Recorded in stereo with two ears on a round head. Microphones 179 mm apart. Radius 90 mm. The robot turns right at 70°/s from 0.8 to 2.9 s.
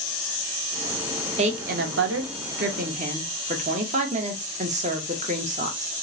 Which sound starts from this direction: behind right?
A woman speaking, at 1.4 s.